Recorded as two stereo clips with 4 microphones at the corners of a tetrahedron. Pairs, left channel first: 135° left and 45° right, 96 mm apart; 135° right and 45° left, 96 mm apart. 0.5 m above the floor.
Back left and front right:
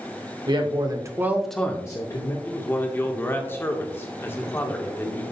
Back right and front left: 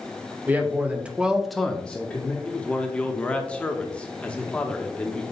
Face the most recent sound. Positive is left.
turn(degrees=165)